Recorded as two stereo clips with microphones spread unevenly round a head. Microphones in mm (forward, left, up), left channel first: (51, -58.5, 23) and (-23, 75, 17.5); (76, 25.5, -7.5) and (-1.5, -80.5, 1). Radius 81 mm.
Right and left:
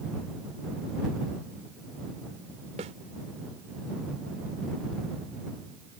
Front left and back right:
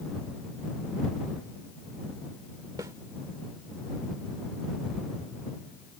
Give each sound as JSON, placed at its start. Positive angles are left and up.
{"t": 2.8, "sound": "a snare drum", "azimuth_deg": 170}